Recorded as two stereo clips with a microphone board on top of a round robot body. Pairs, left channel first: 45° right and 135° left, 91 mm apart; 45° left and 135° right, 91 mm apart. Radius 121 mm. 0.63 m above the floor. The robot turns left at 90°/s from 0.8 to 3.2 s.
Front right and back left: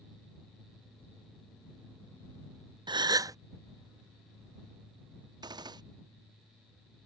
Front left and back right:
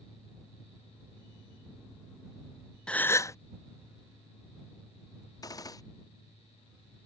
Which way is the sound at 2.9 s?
125° left.